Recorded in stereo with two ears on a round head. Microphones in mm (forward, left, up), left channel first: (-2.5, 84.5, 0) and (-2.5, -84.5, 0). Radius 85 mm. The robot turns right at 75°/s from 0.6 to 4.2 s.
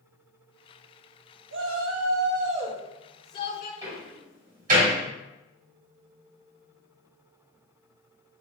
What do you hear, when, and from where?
1.5 s a shout: 115° right, 0.7 m; by 3.7 s 50° left, 0.7 m
3.8 s a door slam: 15° right (ahead or behind), 2.5 m; by 5.0 s 45° right (ahead or behind), 2.5 m